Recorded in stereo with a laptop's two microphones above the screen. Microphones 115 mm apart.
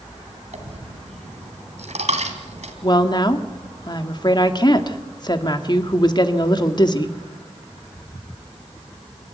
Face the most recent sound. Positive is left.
turn(degrees=40)  # may be behind; listen again after turning